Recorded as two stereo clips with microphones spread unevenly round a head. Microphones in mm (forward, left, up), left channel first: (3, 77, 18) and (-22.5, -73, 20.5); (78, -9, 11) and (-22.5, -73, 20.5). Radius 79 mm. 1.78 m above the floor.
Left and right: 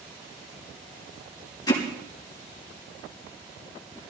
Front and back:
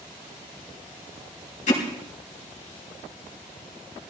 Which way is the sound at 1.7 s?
15° left.